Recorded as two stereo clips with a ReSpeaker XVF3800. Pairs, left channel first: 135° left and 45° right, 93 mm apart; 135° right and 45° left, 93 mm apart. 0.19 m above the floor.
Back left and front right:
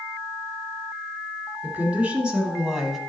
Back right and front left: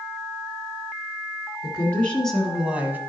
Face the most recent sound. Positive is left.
turn(degrees=45)